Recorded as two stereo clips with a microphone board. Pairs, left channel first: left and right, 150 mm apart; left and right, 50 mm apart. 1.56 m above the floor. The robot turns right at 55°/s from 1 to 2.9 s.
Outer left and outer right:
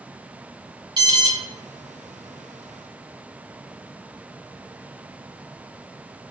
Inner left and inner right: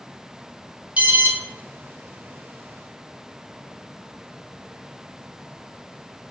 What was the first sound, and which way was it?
An alarm, 30° right (ahead or behind).